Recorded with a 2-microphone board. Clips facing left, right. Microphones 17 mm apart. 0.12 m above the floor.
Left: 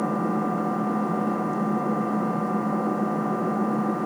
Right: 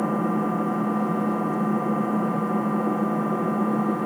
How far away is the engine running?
About 6 m.